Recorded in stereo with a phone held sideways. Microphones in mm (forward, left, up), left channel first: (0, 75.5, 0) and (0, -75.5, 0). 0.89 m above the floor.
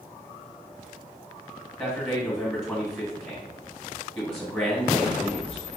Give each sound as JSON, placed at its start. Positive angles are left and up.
{"t": 1.8, "sound": "a man speaking", "side_deg": 10, "distance_m": 1.5}